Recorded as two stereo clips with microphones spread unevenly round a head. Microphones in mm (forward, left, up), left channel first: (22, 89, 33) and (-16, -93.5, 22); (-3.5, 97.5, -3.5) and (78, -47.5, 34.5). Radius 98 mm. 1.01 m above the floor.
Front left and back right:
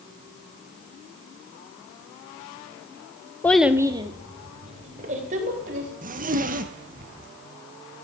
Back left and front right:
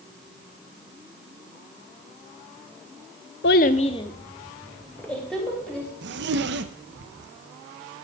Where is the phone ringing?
I don't hear a phone ringing.